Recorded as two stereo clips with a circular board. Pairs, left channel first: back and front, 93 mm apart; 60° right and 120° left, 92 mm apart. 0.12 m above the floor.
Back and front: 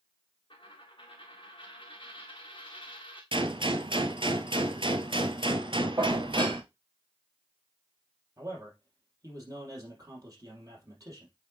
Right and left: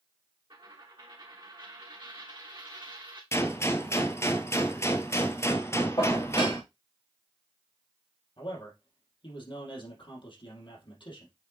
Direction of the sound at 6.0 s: 35° right.